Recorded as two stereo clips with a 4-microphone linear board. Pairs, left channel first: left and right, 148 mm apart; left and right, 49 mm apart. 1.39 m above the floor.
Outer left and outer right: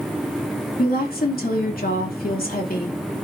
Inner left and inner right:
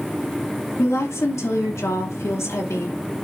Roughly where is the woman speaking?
Left.